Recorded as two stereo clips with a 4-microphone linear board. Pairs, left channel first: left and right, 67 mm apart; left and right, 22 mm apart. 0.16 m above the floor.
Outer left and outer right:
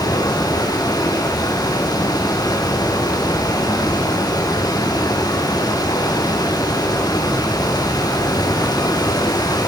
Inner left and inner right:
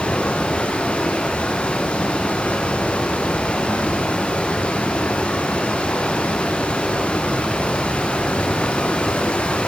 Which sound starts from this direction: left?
Running water, at 0.0 s.